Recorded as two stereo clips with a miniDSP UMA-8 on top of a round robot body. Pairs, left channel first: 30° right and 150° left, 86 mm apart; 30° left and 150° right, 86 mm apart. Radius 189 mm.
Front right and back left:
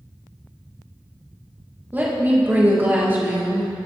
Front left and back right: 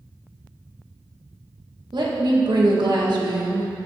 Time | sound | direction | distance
1.9 | a woman speaking | 145° right | 1.9 m